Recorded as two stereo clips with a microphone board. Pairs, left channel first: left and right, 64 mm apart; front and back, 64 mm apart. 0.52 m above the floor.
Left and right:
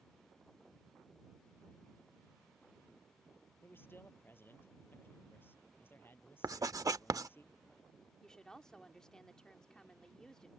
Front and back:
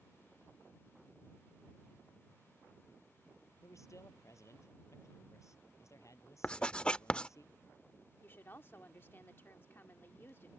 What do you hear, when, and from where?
3.6 s a man speaking: 35° left
6.4 s writing: 75° right
8.2 s a woman speaking: 20° left